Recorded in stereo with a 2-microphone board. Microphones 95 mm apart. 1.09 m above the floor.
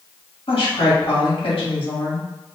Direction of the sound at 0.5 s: 70° left (ahead or behind).